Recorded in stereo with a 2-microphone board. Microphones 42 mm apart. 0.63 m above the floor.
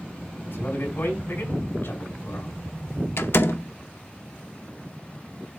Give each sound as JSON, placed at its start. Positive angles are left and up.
{"t": 0.5, "sound": "a man speaking", "side_deg": 55, "distance_m": 4.5}
{"t": 3.2, "sound": "a door slam", "side_deg": 65, "distance_m": 0.6}